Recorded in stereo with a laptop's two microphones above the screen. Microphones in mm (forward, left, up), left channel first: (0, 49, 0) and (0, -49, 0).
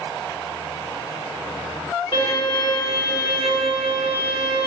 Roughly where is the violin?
Left.